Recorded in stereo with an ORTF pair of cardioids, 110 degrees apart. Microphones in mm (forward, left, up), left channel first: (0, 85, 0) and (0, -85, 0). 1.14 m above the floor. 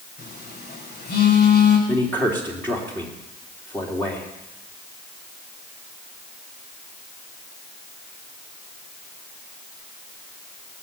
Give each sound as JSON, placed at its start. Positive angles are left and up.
{"t": 0.2, "sound": "a phone buzzing", "azimuth_deg": 65, "distance_m": 5.5}
{"t": 1.9, "sound": "a man speaking", "azimuth_deg": 10, "distance_m": 3.0}